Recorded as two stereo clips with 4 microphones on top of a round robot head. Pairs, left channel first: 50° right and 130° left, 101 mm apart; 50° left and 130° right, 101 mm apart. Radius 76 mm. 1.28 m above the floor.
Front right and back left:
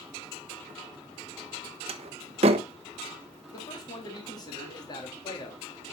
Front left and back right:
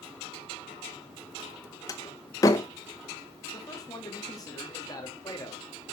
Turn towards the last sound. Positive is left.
turn(degrees=0)